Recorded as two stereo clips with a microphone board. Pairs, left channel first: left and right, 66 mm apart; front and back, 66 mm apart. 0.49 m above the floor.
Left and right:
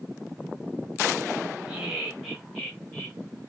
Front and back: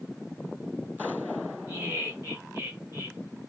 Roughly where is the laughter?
Behind.